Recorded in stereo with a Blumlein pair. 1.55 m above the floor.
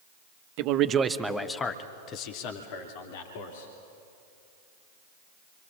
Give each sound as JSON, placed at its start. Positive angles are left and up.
{"t": 0.6, "sound": "a man speaking", "azimuth_deg": -45, "distance_m": 1.5}